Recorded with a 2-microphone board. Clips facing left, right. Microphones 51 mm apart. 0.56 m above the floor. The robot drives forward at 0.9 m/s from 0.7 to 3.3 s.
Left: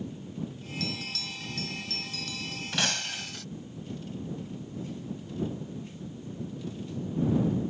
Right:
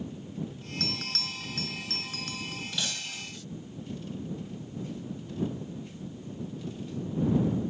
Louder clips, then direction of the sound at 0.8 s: Even; 60° right (ahead or behind).